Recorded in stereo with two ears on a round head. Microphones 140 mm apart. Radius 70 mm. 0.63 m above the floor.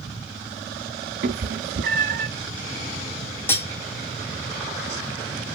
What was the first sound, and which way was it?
A cat meowing, 60° right (ahead or behind).